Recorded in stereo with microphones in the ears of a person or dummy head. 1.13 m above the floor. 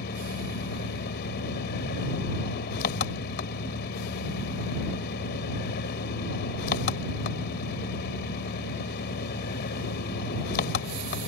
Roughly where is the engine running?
Left.